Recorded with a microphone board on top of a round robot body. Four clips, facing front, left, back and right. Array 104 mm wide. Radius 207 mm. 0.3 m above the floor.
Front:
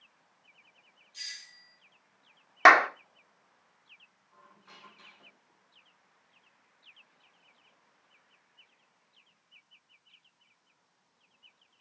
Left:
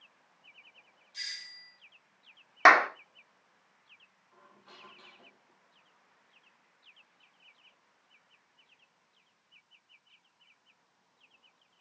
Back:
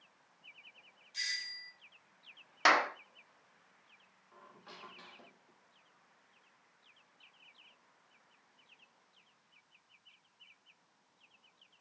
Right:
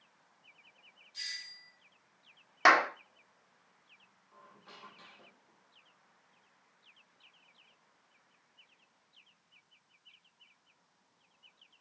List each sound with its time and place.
1.1 s a doorbell: 160° left, 3 m
2.6 s a clap: 35° left, 1.5 m
4.3 s a squeak: 165° right, 3.5 m